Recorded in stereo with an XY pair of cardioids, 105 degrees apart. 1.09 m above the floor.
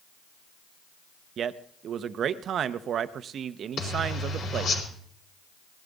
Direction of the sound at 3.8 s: 60° left.